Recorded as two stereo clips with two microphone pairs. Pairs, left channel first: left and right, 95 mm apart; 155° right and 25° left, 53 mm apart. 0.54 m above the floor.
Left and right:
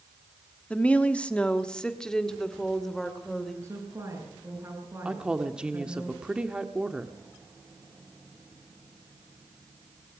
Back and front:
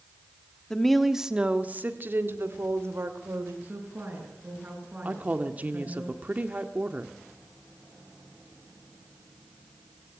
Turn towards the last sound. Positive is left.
turn(degrees=-15)